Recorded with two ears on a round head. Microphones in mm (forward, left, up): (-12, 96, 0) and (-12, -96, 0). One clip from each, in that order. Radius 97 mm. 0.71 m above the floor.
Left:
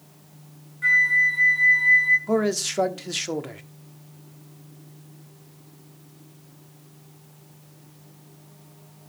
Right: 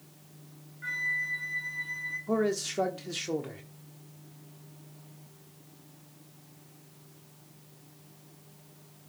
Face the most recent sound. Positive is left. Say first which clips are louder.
# left 6 dB
turn(degrees=30)  # may be behind; listen again after turning